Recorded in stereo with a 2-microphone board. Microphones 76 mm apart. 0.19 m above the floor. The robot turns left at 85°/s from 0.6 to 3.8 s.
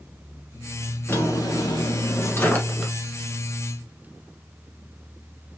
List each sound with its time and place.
1.1 s a drawer: 150° left, 1.2 m; by 2.9 s 5° right, 1.2 m